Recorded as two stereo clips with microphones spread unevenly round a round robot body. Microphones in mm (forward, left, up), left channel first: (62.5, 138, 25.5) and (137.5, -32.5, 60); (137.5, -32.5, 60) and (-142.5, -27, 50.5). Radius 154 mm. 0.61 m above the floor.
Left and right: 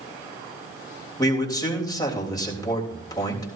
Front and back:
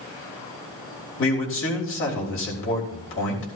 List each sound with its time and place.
1.2 s a man speaking: 45° left, 3.5 m